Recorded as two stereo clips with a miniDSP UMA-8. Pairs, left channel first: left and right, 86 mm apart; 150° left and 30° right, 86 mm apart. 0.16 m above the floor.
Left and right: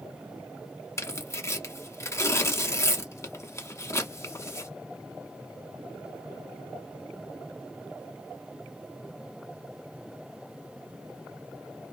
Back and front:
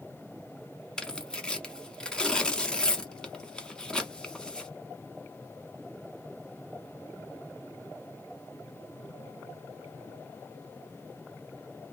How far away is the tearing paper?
About 0.8 m.